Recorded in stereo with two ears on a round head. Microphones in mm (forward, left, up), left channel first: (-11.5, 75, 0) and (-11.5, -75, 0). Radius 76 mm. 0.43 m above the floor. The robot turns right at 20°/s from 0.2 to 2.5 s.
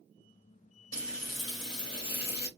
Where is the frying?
25° left, 1.5 m; by 2.5 s 55° left, 1.5 m.